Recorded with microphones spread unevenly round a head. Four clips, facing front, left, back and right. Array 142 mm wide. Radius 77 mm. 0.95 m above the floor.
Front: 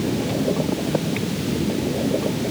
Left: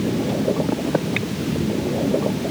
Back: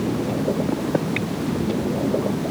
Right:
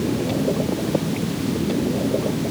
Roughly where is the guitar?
No guitar in this recording.